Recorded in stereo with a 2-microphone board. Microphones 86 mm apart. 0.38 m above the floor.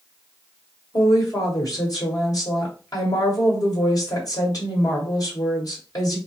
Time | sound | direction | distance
0.9 | a woman speaking | 45° left (ahead or behind) | 2 m